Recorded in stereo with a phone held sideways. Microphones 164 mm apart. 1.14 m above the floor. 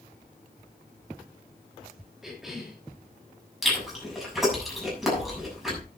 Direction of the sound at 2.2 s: Centre (ahead or behind).